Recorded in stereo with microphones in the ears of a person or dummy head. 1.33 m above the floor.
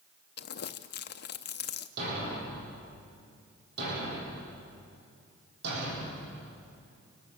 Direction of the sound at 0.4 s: 55° left (ahead or behind).